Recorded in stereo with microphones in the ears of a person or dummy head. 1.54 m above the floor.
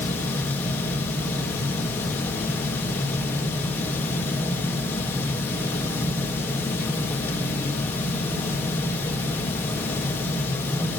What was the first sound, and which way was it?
A fan, 10° left (ahead or behind).